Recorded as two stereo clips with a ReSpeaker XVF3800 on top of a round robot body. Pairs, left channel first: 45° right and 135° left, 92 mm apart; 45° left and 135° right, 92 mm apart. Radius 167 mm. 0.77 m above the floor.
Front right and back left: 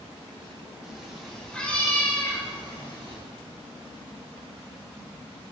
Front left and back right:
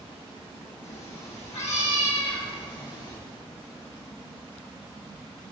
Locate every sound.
0.8 s a cat meowing: 55° left, 2.5 m; by 3.2 s 10° right, 2.5 m